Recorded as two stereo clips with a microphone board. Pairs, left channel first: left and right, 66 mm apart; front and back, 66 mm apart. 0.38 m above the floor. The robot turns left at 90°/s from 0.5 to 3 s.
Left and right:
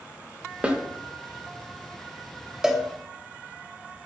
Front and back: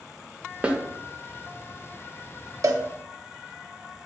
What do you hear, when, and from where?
0.6 s a snare drum: 135° right, 0.5 m; by 0.8 s 150° right, 0.5 m
2.6 s a cowbell: 170° right, 0.6 m; by 2.8 s 175° left, 0.6 m